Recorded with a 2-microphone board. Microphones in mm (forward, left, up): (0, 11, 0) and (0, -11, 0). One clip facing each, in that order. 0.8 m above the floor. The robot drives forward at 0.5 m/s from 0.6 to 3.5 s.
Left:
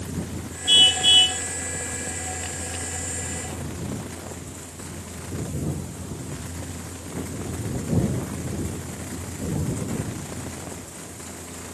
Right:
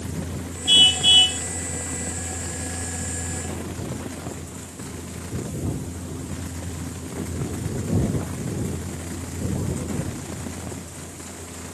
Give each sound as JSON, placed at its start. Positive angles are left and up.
{"t": 0.7, "sound": "a car horn", "side_deg": -5}